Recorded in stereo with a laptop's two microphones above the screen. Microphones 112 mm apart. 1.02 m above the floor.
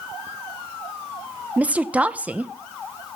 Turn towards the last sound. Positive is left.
turn(degrees=-10)  # may be behind; listen again after turning